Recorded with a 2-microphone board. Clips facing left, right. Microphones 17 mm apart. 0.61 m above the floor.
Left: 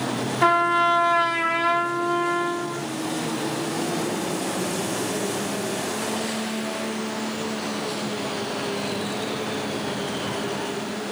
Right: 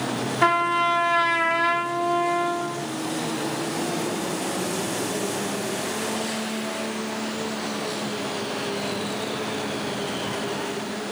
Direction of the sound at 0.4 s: 10° right (ahead or behind).